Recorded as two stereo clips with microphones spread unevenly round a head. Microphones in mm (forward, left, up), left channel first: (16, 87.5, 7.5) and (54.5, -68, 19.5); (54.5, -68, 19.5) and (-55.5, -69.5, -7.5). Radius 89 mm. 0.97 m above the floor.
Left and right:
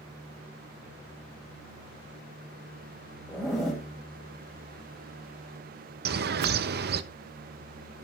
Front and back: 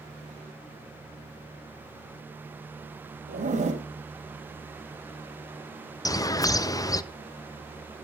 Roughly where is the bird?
Ahead right.